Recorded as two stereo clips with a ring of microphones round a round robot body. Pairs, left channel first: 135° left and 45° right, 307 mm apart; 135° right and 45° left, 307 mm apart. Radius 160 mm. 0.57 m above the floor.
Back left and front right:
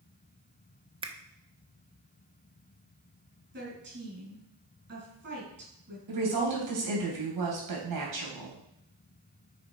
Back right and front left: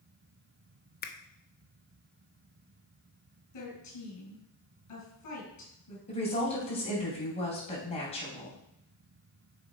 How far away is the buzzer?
No buzzer in this recording.